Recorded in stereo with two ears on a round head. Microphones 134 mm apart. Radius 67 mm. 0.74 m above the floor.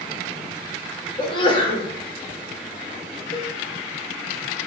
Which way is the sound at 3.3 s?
50° left (ahead or behind).